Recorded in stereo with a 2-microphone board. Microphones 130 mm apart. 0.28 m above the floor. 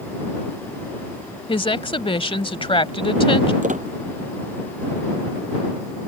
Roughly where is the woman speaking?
Left.